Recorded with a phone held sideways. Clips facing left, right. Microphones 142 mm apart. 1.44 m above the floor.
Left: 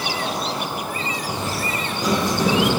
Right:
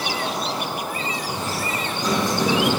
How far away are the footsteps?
About 3 m.